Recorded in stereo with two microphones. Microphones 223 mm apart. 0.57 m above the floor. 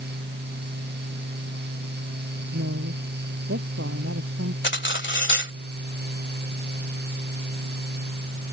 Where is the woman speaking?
80° right.